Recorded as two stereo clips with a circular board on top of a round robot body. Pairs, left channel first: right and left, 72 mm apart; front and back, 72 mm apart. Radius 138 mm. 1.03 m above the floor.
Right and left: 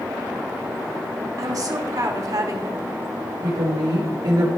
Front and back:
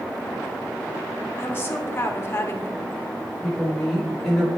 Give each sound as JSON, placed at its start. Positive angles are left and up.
{"t": 1.4, "sound": "a woman speaking", "azimuth_deg": 55, "distance_m": 1.5}
{"t": 3.4, "sound": "a woman speaking", "azimuth_deg": 90, "distance_m": 2.5}